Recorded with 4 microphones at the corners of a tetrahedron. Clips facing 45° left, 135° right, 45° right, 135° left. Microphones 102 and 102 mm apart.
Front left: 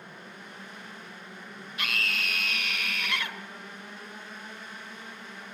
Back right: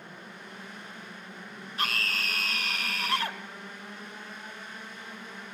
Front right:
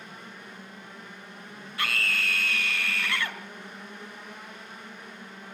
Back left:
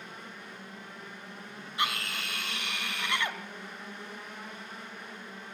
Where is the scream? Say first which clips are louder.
Back right 1 dB, front right 2 dB; 165° right, 1.9 m.